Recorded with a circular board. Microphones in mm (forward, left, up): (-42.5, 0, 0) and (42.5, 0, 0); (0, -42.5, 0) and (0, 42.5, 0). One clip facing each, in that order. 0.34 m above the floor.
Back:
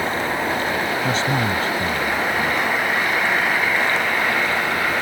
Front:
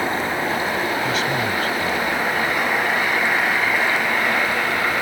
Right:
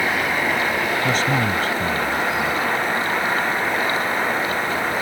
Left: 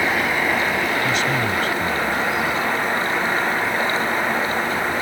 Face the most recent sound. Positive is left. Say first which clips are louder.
# back 1 dB, right 1 dB
turn(degrees=-130)